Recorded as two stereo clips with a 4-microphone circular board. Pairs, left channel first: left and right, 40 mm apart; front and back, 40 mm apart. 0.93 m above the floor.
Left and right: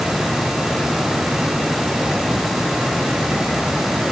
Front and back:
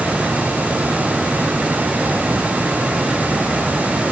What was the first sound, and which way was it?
Only background noise.